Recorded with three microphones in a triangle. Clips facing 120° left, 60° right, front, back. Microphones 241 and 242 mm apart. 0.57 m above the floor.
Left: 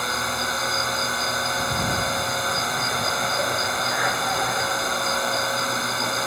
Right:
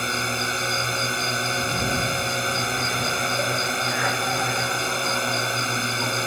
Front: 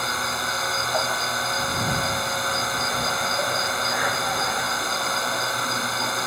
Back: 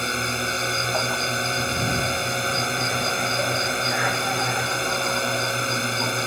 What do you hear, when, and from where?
0.0 s a drone: 120° right